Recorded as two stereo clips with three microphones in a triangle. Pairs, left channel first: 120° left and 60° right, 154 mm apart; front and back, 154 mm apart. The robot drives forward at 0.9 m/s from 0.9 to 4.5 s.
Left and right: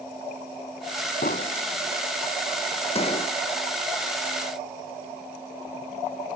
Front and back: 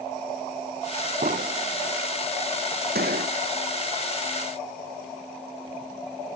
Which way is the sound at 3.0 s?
170° left.